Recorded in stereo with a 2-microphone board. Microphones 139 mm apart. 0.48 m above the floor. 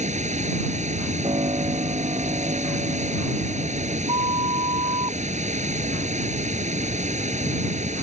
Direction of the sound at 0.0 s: 60° right (ahead or behind).